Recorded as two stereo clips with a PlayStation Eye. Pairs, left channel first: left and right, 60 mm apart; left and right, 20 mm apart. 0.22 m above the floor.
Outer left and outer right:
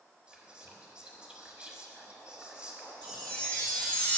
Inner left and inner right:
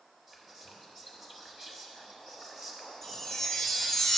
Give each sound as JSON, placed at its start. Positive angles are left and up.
{"t": 0.3, "sound": "whispering", "side_deg": -15, "distance_m": 1.2}
{"t": 3.0, "sound": "a chime", "side_deg": 10, "distance_m": 1.4}